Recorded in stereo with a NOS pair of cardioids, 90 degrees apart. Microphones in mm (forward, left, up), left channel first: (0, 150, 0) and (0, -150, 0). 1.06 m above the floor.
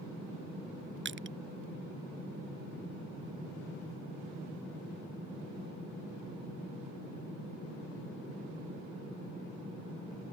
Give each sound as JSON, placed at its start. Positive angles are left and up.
{"t": 1.1, "sound": "crushing", "azimuth_deg": -40}